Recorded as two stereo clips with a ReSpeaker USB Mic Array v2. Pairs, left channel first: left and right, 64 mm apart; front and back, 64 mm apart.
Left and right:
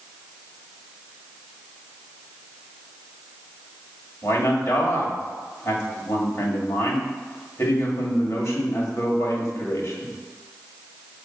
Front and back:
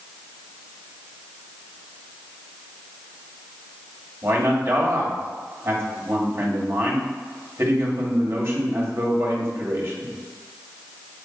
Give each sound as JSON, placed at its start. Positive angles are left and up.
{"t": 4.2, "sound": "a man speaking", "azimuth_deg": 130, "distance_m": 1.7}